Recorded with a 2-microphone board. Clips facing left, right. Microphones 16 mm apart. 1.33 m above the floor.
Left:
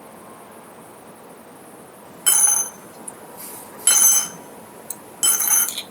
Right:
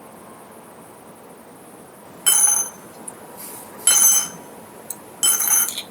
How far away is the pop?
I don't hear a pop.